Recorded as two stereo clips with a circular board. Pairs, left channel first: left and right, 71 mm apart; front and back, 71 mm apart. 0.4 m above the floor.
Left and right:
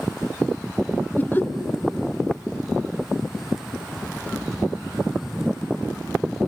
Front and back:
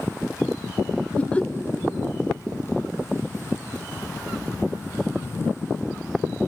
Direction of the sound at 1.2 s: 55° left.